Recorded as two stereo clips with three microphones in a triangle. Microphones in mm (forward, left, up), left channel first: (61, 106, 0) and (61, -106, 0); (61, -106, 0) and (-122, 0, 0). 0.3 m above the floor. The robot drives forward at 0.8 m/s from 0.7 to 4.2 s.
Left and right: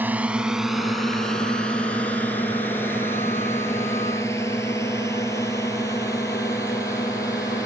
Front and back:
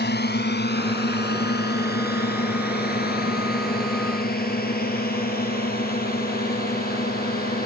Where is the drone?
10° right; by 7.7 s 15° left.